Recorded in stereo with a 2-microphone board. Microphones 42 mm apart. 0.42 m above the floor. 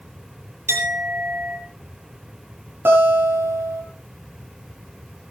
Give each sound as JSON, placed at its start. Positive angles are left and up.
{"t": 0.7, "sound": "a clink", "side_deg": -80, "distance_m": 7.5}
{"t": 2.9, "sound": "a guitar", "side_deg": -65, "distance_m": 8.0}